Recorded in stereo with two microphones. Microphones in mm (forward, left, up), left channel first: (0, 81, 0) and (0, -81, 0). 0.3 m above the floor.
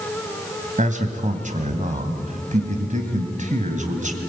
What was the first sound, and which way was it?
A man speaking, 50° right (ahead or behind).